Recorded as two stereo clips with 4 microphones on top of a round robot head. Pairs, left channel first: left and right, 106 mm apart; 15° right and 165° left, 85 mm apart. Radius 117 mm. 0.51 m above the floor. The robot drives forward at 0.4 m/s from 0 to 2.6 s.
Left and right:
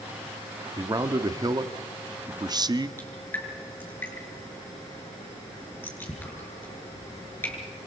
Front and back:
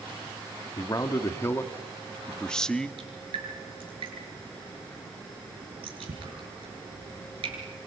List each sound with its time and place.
0.8 s a man speaking: 45° right, 1.4 m; by 2.9 s 90° right, 1.1 m
3.0 s dripping: 160° left, 6.5 m